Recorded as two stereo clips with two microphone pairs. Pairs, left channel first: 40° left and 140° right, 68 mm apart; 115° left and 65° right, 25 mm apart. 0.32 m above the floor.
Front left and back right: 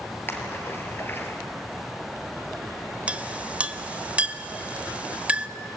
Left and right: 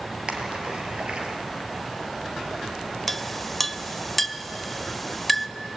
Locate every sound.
0.3 s a splash: 20° right, 2.5 m
3.1 s a clink: 170° right, 0.6 m